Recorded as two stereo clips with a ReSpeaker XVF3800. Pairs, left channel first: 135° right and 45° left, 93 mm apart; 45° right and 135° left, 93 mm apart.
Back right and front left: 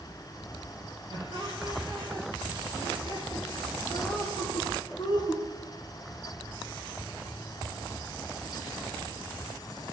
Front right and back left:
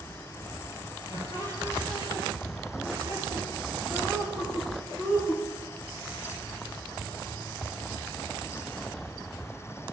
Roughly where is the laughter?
Behind.